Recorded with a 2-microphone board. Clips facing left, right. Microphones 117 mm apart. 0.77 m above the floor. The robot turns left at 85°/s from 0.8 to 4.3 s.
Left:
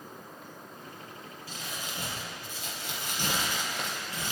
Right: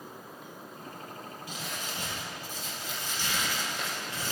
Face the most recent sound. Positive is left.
turn(degrees=-40)